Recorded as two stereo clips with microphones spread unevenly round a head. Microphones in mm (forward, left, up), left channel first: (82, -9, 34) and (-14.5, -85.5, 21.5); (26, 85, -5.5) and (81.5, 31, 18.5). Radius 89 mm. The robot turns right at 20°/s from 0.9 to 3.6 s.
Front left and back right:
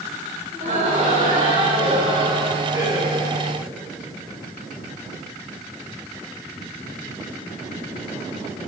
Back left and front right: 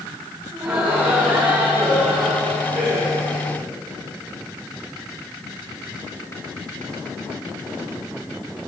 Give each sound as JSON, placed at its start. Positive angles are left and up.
{"t": 0.5, "sound": "laughter", "azimuth_deg": -120, "distance_m": 8.5}